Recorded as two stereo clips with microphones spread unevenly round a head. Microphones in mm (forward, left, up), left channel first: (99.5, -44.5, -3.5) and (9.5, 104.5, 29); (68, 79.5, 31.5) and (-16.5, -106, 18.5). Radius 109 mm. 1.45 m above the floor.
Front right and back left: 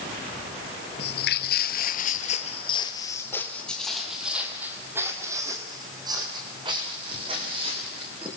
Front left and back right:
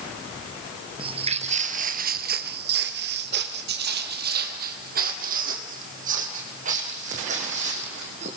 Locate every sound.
1.0 s footsteps: 55° right, 1.9 m; by 8.3 s 175° right, 6 m